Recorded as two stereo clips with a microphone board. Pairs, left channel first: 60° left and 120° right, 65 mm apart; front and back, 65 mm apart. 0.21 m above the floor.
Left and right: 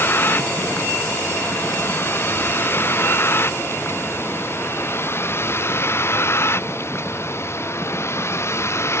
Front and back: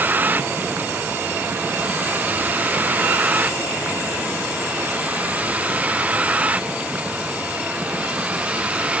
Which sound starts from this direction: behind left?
A vehicle, at 0.0 s.